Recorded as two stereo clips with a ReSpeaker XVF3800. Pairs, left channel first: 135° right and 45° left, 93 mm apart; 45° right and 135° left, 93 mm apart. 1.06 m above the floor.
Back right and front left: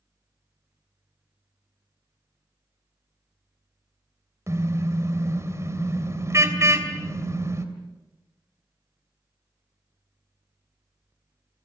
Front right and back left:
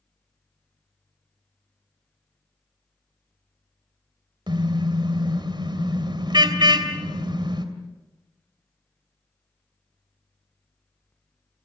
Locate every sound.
4.5 s a car horn: 105° left, 2.5 m